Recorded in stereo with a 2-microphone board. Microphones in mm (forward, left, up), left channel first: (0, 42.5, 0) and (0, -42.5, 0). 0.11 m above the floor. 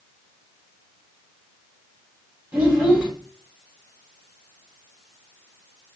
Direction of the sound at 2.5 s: 25° right (ahead or behind).